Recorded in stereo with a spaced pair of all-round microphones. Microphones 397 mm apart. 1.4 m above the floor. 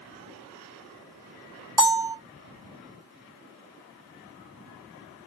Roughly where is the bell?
Centre.